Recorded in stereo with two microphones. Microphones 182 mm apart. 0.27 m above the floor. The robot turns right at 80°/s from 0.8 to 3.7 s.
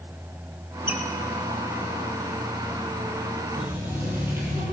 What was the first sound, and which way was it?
A squeak, 65° right (ahead or behind).